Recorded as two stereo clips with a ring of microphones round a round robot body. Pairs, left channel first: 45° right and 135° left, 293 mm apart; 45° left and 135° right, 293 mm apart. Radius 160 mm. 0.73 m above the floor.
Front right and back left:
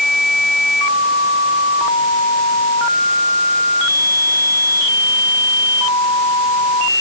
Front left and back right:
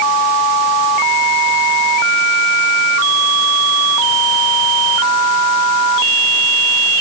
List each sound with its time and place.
Only background noise.